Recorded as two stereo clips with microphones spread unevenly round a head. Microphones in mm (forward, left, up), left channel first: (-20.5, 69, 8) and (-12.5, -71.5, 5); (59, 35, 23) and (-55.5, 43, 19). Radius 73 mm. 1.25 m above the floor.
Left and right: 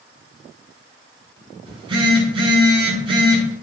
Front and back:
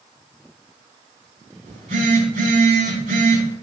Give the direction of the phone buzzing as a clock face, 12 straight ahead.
5 o'clock.